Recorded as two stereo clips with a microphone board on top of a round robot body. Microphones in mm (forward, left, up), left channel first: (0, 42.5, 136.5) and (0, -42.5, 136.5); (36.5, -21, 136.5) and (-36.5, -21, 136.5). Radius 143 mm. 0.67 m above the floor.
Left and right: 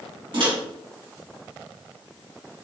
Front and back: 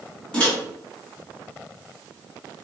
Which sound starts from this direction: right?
A microwave, at 0.3 s.